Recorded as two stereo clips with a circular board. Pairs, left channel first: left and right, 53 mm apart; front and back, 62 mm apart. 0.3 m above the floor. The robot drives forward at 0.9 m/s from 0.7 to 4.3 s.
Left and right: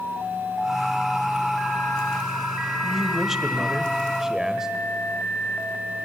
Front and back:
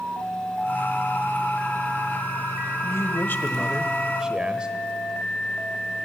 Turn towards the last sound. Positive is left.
turn(degrees=-145)